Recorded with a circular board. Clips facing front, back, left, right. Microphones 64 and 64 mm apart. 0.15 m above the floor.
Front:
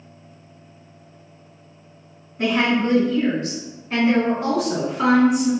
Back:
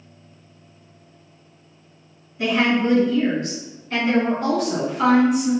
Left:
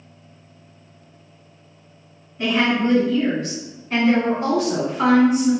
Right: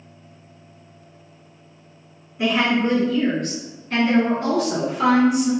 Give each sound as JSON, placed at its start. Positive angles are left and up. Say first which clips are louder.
{"t": 2.4, "sound": "a woman speaking", "louder": "even, even", "azimuth_deg": -15, "distance_m": 1.8}